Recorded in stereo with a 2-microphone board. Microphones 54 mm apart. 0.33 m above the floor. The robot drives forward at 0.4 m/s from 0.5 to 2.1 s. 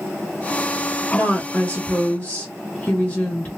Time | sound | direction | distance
1.1 | a woman speaking | 25° left (ahead or behind) | 1.2 m